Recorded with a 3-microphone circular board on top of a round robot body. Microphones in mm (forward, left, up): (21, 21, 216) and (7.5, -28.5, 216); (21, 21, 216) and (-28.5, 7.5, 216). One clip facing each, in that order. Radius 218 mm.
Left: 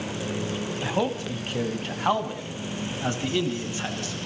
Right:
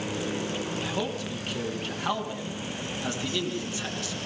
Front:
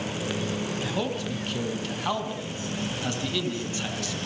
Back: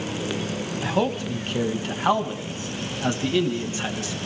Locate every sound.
0.8 s a man speaking: 135° left, 3.5 m; by 4.2 s 130° left, 5.5 m